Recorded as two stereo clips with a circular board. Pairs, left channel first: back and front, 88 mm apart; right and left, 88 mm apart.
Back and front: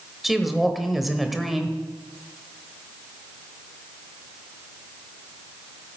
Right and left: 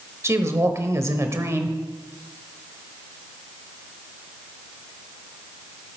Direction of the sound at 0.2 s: 85° left.